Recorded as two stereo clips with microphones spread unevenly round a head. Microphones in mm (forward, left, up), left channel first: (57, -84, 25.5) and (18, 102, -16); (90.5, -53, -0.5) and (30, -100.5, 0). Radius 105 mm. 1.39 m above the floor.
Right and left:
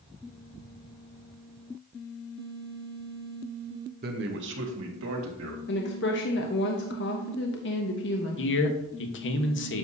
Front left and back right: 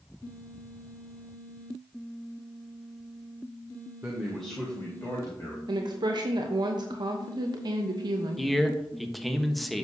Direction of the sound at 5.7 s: 120° right.